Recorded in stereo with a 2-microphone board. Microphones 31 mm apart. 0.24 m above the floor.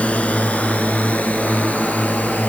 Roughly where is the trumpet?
I don't hear a trumpet.